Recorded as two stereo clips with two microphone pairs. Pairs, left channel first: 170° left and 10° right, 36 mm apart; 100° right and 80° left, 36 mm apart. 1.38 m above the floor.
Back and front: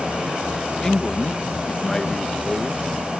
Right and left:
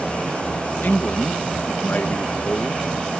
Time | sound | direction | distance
0.8 | a man speaking | 125° right | ?